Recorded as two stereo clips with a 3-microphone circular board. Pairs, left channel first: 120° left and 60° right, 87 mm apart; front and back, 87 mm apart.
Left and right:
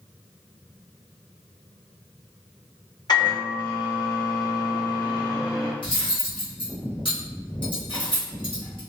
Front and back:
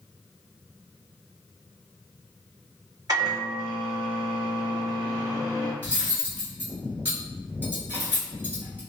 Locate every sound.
3.1 s a microwave: 145° left, 0.9 m
5.8 s cutlery clinking: 110° left, 1.5 m